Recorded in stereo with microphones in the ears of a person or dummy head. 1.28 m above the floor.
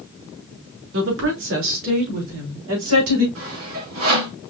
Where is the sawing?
75° right (ahead or behind), 2.5 m.